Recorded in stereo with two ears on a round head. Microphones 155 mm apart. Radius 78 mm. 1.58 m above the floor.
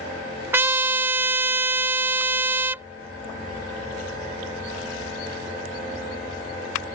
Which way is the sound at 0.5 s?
15° right (ahead or behind).